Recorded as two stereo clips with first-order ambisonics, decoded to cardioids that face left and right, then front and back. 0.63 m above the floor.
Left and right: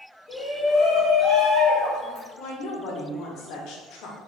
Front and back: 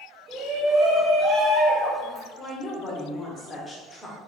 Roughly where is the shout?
Behind.